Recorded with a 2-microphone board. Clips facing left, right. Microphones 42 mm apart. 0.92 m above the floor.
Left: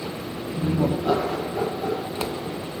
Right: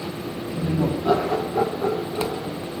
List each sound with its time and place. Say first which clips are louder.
0.6 s laughter: left 1 dB; 25° left (ahead or behind), 0.8 m; by 2.5 s 55° right (ahead or behind), 1.3 m